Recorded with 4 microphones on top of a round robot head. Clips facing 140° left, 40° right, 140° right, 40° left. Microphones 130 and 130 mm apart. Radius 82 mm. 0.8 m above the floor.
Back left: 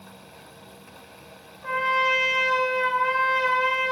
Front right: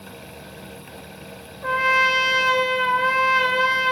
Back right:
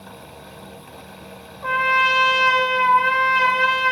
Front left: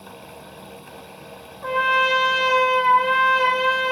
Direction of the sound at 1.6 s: 55° right.